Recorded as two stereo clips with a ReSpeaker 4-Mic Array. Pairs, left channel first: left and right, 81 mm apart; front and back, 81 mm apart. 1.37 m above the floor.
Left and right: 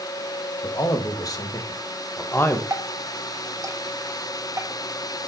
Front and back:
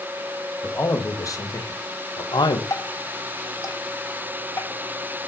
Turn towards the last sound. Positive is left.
turn(degrees=-45)